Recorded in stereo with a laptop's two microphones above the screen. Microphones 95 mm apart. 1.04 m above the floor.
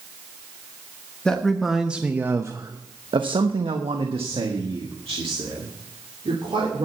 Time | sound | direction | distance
1.2 | a man speaking | 5° left (ahead or behind) | 1.2 m